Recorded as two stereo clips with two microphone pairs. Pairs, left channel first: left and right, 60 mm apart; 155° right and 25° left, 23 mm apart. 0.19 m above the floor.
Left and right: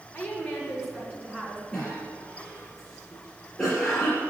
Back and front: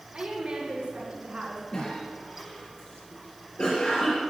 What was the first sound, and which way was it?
A woman speaking, 15° left.